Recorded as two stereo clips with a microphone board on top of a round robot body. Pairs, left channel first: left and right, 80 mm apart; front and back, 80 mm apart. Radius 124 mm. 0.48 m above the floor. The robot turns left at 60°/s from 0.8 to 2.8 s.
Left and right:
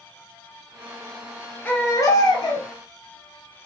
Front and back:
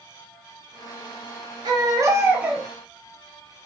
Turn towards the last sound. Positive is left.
turn(degrees=90)